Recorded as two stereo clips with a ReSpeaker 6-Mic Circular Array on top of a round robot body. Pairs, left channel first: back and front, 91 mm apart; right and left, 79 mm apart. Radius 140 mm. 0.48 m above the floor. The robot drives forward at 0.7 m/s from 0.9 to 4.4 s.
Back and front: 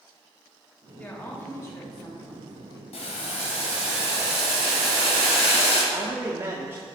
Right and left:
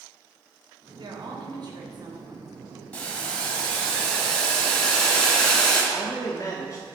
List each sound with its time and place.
1.0 s a woman speaking: 110° left, 2.5 m; by 2.8 s 135° left, 3 m
2.9 s boiling: 165° right, 1.6 m; by 5.8 s 170° right, 2.5 m
5.9 s a man speaking: 60° right, 1.4 m